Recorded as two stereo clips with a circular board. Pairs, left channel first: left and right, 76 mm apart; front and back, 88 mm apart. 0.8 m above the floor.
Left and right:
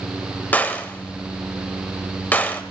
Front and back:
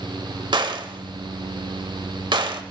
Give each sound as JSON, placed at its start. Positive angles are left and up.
{"t": 0.5, "sound": "a gunshot", "azimuth_deg": 155, "distance_m": 1.4}